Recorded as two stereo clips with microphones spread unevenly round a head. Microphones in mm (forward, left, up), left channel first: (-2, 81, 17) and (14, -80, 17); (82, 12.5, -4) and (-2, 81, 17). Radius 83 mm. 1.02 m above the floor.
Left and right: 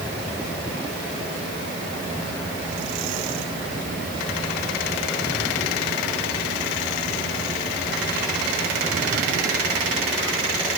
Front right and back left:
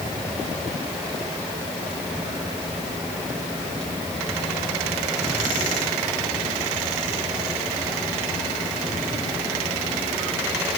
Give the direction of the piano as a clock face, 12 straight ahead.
No piano in this recording.